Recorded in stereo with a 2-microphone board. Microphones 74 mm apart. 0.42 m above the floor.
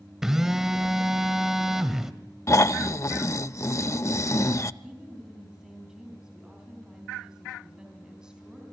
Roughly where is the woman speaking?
Centre.